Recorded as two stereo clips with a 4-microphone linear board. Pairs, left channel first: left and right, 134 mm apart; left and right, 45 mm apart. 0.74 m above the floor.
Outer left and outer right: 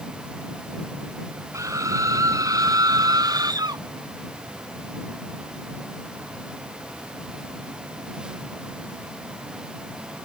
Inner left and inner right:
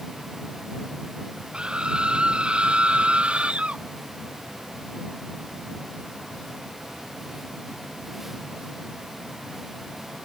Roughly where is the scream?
Right.